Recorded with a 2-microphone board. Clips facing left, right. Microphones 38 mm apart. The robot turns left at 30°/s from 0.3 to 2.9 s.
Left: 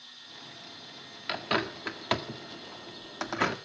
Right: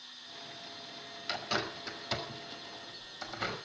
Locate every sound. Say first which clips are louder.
1.3 s a bird: left 5 dB; 30° left (ahead or behind), 1.8 m; by 3.6 s 75° left (ahead or behind), 1.8 m